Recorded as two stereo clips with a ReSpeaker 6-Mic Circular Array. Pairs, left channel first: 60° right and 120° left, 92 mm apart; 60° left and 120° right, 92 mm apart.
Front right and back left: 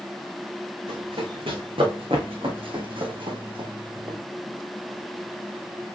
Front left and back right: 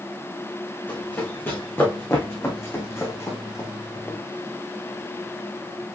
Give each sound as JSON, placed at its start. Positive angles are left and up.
{"t": 0.9, "sound": "running footsteps", "azimuth_deg": 125, "distance_m": 2.5}